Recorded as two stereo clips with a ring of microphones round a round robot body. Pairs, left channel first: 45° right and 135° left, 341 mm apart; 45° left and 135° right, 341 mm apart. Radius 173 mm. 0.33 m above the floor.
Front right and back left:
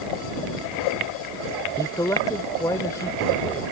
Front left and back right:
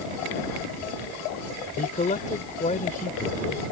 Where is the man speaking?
20° left.